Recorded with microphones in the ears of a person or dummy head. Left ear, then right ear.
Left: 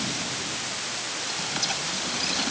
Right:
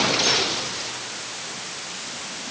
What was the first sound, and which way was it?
Only background noise.